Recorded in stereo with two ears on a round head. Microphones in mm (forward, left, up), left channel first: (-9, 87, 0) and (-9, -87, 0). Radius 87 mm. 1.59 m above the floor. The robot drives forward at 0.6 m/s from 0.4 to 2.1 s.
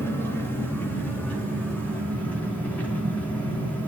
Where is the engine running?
10° left (ahead or behind), 3 m.